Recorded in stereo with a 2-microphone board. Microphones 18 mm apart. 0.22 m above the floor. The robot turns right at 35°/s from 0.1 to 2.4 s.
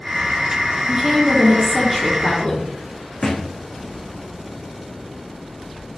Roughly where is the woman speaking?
Ahead right.